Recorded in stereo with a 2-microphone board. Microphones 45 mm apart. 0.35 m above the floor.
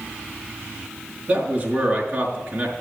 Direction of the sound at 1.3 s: 40° right (ahead or behind).